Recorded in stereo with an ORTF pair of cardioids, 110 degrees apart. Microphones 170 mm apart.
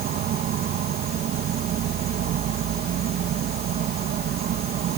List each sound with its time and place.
0.0 s an insect: 60° right